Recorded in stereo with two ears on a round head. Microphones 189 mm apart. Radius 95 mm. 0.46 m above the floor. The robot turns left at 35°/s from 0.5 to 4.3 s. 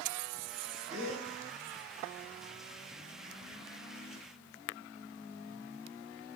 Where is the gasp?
5° right (ahead or behind), 5.5 m; by 1.3 s 10° left (ahead or behind), 5.5 m.